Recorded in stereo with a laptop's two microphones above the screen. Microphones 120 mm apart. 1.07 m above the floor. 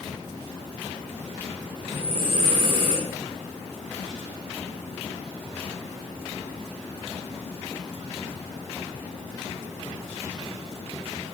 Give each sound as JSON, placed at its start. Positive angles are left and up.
{"t": 1.8, "sound": "breathing", "side_deg": -45, "distance_m": 1.5}